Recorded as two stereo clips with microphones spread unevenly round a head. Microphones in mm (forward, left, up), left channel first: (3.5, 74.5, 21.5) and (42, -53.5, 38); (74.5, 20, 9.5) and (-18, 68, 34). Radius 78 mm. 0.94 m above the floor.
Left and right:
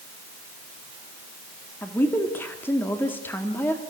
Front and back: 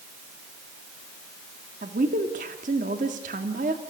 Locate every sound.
1.8 s a woman speaking: straight behind, 2.5 m